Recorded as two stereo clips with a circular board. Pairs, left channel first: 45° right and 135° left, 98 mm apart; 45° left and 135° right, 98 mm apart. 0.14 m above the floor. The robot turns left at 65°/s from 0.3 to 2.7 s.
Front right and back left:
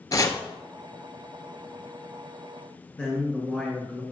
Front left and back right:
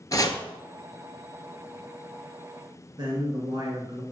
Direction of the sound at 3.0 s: 120° right.